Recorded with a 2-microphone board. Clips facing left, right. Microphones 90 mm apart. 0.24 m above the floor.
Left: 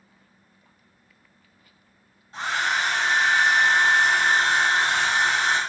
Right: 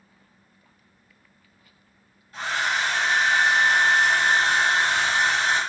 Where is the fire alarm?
I don't hear a fire alarm.